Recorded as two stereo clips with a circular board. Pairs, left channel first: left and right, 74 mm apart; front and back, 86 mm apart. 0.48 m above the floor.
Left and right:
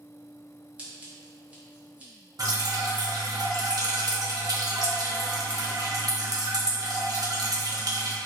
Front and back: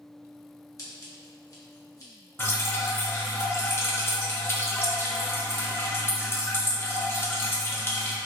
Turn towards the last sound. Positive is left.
turn(degrees=-60)